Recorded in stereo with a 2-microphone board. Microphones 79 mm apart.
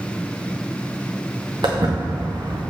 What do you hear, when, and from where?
1.6 s footsteps: 75° right (ahead or behind), 1.9 m